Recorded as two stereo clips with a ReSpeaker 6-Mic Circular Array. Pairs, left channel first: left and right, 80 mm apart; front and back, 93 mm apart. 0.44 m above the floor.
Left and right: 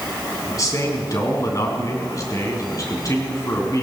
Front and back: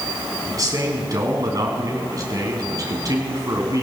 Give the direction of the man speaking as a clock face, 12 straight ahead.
8 o'clock.